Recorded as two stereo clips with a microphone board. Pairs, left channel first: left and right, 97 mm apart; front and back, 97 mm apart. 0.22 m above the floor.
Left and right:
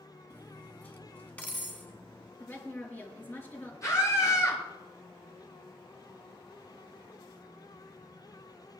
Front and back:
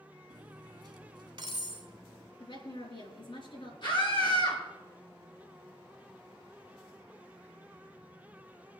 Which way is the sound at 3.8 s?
35° left.